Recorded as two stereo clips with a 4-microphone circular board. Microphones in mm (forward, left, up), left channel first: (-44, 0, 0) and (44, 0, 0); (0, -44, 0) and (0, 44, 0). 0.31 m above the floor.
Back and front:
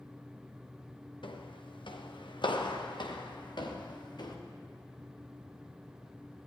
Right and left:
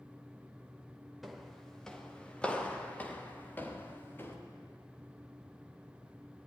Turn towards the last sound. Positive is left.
turn(degrees=-150)